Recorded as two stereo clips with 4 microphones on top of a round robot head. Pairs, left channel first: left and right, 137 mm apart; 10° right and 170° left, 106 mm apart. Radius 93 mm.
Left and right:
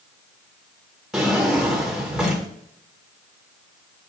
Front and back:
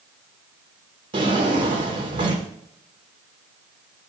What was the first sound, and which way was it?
A drawer, 175° right.